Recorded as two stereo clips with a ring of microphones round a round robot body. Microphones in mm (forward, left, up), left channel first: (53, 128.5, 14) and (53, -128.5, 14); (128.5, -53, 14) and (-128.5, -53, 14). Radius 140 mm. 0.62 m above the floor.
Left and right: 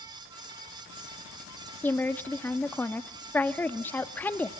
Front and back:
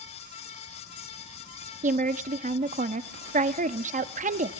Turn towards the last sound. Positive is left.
turn(degrees=165)